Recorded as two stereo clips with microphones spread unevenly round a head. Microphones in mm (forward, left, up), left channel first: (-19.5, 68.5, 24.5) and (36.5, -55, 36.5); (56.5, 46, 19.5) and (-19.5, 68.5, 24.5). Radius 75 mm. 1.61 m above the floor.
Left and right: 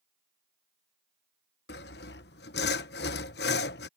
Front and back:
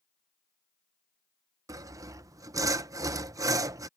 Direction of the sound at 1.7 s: 130° left.